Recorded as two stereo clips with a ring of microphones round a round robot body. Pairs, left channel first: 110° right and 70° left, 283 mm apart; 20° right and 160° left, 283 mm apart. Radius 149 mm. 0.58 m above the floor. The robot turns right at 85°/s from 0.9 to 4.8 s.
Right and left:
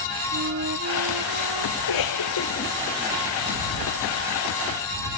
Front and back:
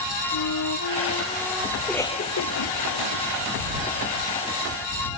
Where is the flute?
15° left; by 1.7 s 80° left.